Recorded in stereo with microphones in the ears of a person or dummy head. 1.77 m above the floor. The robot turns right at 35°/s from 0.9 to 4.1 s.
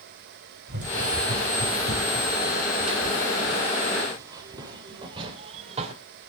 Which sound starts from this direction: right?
Running footsteps, at 0.7 s.